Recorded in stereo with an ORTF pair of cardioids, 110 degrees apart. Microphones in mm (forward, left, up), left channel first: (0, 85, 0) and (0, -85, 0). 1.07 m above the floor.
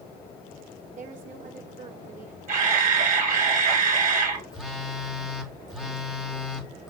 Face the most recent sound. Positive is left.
turn(degrees=-5)